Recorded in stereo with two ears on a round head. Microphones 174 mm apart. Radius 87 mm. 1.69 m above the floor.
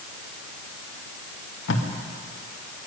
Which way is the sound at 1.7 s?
60° left (ahead or behind).